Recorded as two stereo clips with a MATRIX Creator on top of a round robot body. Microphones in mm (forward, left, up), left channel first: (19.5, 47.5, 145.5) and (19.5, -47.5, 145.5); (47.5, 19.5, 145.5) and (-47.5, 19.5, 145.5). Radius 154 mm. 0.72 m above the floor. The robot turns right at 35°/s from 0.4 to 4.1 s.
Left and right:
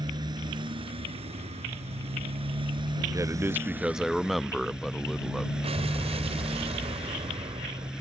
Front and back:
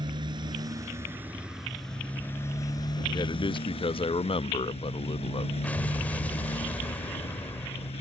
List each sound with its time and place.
0.0 s a motorcycle: 135° right; by 8.0 s 10° right
3.1 s a man speaking: 35° right; by 5.5 s straight ahead
5.6 s an explosion: 75° right